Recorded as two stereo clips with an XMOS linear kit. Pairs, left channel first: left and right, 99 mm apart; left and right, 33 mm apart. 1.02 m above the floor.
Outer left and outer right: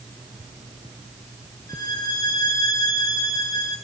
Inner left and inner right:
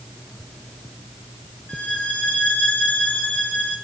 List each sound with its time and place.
1.7 s a violin: 40° left (ahead or behind), 9.5 m